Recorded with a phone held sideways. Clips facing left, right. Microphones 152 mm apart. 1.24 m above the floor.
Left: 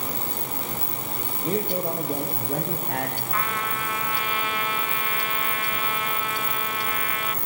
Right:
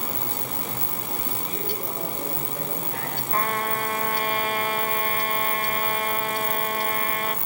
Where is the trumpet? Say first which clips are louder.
Right 7 dB; 40° right (ahead or behind), 0.8 m.